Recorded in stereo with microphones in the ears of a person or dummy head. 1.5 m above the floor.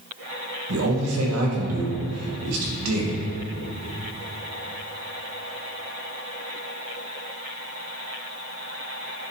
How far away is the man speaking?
About 2 m.